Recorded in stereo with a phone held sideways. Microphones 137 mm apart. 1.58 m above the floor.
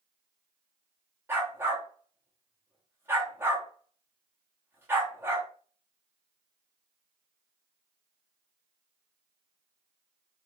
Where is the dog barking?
15° right (ahead or behind), 1.0 m.